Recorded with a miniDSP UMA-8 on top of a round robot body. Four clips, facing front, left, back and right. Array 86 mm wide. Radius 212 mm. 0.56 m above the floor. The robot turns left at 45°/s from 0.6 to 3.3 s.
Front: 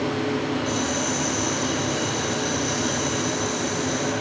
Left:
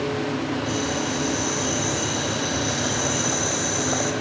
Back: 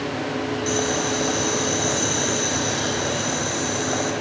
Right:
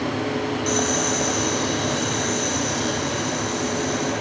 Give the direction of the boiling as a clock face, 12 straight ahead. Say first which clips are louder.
Right 3 dB, back 2 dB; 4 o'clock.